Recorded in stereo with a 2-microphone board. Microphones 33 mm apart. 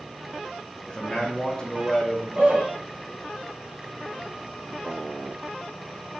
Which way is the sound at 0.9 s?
20° left (ahead or behind).